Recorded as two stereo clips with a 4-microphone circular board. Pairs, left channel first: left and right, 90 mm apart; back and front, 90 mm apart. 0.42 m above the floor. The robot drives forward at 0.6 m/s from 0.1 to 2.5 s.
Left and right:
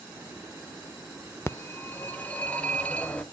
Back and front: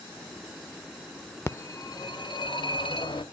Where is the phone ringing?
135° left, 0.5 m; by 3.2 s 165° left, 1.0 m.